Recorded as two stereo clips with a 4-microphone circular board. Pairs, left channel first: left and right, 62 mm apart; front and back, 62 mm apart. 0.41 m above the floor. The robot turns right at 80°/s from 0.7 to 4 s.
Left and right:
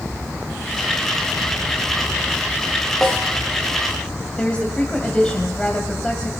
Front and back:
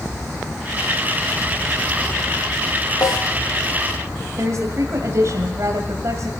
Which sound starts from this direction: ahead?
A snare drum, at 3.0 s.